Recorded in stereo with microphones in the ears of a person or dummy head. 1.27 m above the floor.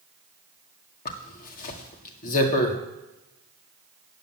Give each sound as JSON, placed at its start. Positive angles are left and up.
{"t": 1.1, "sound": "a zipper", "side_deg": 50, "distance_m": 1.9}